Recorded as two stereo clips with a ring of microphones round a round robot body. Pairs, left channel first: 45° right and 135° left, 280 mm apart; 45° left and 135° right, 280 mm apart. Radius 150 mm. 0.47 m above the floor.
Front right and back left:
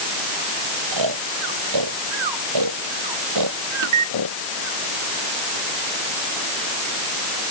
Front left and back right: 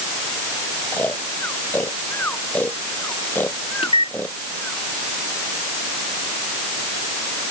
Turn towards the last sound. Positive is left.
turn(degrees=115)